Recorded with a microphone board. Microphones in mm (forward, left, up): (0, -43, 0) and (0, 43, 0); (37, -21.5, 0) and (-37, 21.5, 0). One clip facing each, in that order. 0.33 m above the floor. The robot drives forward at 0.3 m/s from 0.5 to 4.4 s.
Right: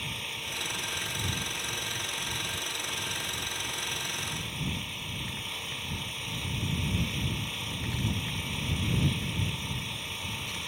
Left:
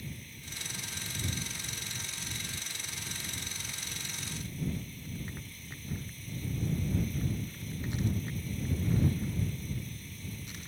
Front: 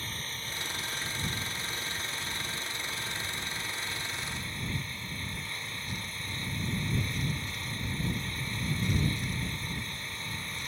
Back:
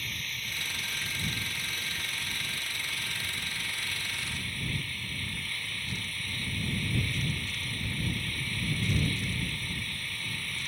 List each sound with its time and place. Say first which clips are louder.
0.0 s an engine running: right 7 dB, even; 90° right; by 10.7 s 100° right